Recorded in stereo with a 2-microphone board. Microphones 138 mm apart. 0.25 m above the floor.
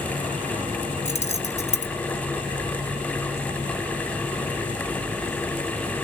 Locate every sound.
1.1 s keys jangling: 55° left (ahead or behind), 1.9 m